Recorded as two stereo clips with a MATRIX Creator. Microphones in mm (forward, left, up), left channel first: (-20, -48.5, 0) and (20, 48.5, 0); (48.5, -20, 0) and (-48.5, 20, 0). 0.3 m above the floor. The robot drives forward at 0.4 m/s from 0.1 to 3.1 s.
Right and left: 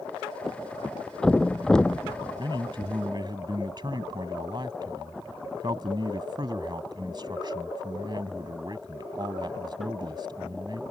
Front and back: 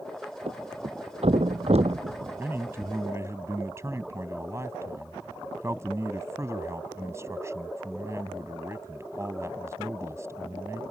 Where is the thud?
160° left; by 2.9 s 170° left.